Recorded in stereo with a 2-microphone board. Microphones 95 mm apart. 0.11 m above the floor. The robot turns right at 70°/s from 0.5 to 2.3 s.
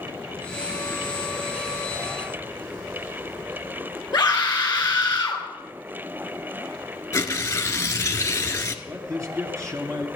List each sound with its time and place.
4.1 s a scream: 40° left (ahead or behind), 3 m
7.1 s tearing paper: 30° left (ahead or behind), 1.3 m
8.8 s a man speaking: 35° right (ahead or behind), 2.0 m